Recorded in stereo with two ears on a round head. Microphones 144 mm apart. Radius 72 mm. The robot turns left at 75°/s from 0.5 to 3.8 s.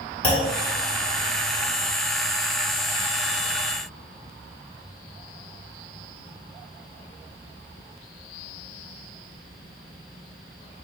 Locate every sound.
0.2 s a clunk: 50° left (ahead or behind), 1.3 m